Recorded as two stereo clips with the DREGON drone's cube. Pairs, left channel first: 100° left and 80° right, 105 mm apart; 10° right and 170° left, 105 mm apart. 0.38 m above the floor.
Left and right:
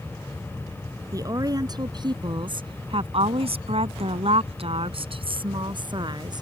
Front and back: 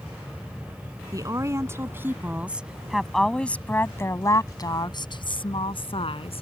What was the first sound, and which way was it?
A woman speaking, 135° right.